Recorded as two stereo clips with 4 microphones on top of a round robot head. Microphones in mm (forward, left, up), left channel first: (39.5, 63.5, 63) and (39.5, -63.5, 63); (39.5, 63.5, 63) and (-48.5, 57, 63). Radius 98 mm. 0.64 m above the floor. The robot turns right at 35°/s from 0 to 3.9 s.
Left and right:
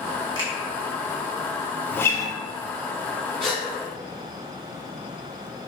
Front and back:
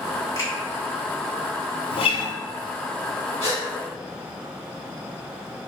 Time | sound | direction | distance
0.3 | a finger snap | 50° right | 1.8 m
1.9 | a guitar | 15° left | 0.5 m
3.4 | a gasp | 5° left | 1.7 m